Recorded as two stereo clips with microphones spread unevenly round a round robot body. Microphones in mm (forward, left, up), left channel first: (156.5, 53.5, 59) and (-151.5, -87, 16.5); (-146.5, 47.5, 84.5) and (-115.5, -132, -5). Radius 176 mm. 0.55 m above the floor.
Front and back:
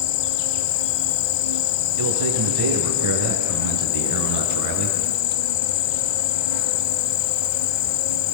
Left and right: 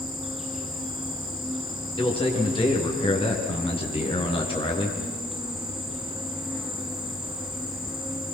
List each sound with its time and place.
0.0 s an insect: 15° left, 0.9 m
2.0 s a man speaking: 165° left, 7 m